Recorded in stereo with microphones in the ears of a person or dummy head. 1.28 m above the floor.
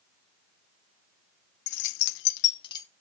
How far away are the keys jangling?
About 0.8 m.